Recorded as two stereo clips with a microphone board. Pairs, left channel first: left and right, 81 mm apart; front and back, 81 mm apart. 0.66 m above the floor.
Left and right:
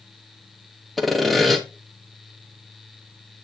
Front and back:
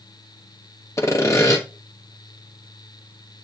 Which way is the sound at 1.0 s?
Straight ahead.